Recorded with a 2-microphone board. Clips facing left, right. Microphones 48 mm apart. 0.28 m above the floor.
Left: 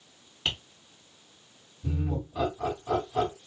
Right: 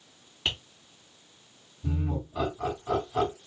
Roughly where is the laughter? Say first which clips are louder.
Even; centre.